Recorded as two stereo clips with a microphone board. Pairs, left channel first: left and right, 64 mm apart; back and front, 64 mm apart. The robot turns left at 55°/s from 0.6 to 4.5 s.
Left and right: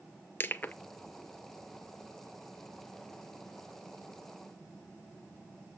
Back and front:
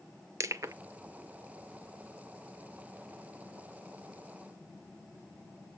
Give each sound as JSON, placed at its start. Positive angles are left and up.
{"t": 0.4, "sound": "crushing", "azimuth_deg": 35, "distance_m": 0.6}